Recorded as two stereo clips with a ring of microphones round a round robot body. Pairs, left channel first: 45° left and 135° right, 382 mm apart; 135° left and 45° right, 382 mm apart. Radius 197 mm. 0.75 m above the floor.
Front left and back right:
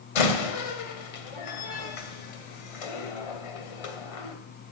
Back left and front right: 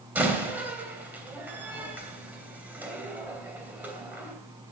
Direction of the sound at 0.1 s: 40° left.